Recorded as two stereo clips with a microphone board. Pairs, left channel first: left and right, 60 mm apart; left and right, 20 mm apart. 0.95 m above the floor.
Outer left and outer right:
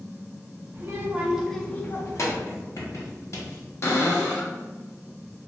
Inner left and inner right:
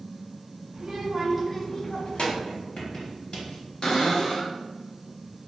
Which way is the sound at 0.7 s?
40° right (ahead or behind).